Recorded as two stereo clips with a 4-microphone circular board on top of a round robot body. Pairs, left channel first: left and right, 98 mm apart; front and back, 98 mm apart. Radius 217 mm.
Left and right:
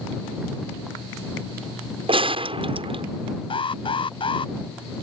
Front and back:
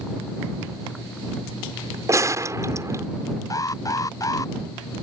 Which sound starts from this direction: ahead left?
An alarm, at 3.5 s.